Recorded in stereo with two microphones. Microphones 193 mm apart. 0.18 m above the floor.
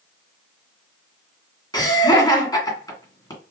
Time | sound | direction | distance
1.7 | laughter | 20° left (ahead or behind) | 1.9 m